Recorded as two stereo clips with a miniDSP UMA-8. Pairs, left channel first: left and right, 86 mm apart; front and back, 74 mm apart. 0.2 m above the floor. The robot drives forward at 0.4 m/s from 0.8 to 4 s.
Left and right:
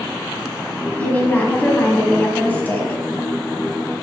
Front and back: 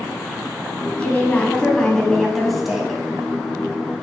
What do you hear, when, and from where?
1.0 s a woman speaking: 40° left, 1.6 m; by 3.0 s 110° left, 1.5 m